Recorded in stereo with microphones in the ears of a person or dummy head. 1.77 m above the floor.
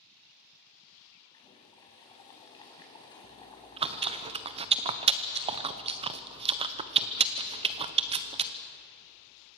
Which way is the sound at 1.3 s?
25° left (ahead or behind).